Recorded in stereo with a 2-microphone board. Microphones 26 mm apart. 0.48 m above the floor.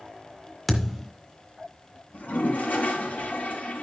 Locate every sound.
0.7 s a thud: 5° left (ahead or behind), 2 m
2.1 s a toilet flushing: 80° left, 4 m